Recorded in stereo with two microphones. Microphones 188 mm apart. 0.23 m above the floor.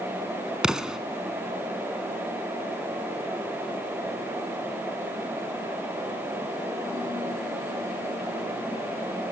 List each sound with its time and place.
0.6 s an explosion: 5° right (ahead or behind), 0.8 m